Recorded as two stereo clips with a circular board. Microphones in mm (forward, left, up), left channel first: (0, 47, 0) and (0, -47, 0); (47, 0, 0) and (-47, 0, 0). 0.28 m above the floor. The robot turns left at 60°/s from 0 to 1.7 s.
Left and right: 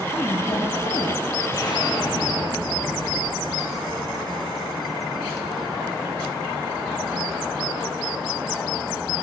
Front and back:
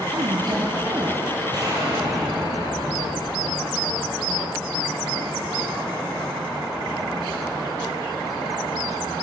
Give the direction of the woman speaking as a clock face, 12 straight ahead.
6 o'clock.